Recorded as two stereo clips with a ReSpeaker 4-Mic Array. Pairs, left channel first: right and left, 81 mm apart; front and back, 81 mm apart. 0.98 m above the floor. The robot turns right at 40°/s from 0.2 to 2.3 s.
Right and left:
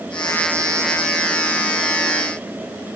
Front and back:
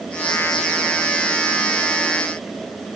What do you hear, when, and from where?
Only background noise.